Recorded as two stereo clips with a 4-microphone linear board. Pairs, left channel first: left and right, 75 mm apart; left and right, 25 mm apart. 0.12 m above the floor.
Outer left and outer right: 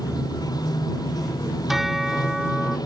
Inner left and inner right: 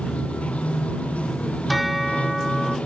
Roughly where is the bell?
Centre.